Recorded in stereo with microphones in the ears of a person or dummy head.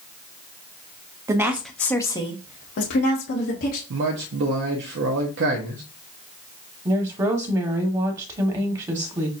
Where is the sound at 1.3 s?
15° right (ahead or behind), 0.8 m; by 3.8 s 75° left (ahead or behind), 1.3 m.